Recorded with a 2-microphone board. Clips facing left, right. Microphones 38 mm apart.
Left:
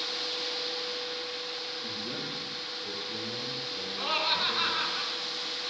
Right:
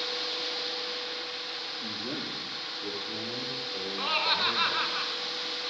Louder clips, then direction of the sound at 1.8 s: Right 1 dB; 65° right (ahead or behind).